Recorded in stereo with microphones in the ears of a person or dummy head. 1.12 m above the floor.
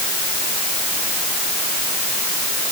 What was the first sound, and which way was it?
Only background noise.